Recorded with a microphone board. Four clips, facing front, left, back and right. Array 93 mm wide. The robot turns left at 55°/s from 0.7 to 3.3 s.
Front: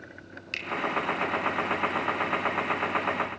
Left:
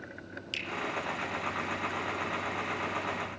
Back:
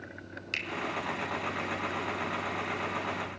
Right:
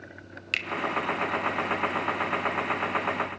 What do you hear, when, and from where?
0.5 s a finger snap: 90° right, 1.6 m